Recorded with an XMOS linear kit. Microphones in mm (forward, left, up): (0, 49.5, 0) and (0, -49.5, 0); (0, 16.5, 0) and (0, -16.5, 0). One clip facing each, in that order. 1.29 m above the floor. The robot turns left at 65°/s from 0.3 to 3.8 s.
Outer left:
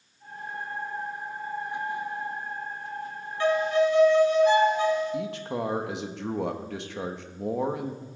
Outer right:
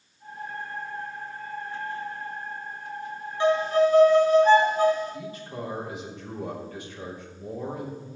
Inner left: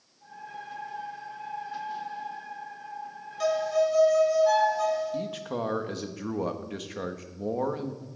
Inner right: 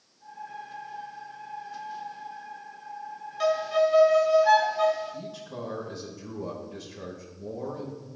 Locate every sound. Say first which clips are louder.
3.4 s a violin: outer right 2 dB, inner right 1 dB; 20° right (ahead or behind), 1.1 m; by 5.2 s 40° right (ahead or behind), 1.1 m
5.1 s a man speaking: outer left 6 dB, inner left 6 dB; 80° left, 1.4 m